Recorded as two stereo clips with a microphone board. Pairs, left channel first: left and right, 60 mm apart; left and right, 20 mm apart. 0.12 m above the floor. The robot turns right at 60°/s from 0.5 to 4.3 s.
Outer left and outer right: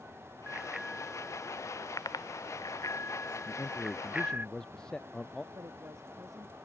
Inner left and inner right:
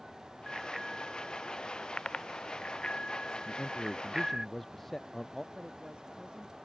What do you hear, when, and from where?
0.5 s a bicycle bell: 20° right (ahead or behind); by 4.5 s 30° right (ahead or behind)
3.5 s a man speaking: 120° left; by 5.4 s 170° left
5.5 s a woman speaking: 60° right (ahead or behind)